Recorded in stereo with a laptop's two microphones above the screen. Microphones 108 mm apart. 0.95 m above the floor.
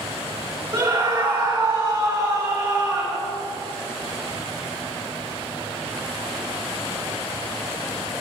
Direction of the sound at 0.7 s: 35° right (ahead or behind).